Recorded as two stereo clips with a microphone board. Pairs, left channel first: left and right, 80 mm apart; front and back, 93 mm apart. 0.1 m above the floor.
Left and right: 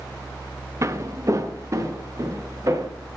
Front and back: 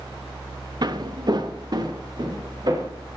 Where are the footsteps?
140° right, 0.7 m; by 2.9 s 135° right, 2.5 m.